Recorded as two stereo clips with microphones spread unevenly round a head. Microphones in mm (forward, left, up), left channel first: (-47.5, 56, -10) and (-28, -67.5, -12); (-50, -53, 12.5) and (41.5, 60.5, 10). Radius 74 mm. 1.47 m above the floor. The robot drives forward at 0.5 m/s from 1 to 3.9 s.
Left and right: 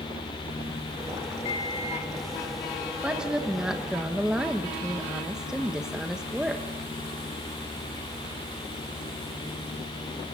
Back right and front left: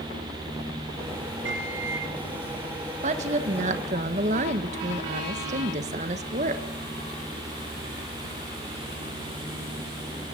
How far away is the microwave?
About 2 m.